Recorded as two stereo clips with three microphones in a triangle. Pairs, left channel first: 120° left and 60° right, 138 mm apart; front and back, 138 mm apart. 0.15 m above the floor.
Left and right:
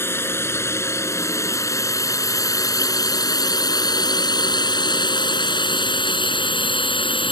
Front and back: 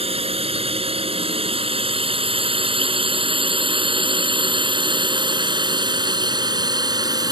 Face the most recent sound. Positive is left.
turn(degrees=140)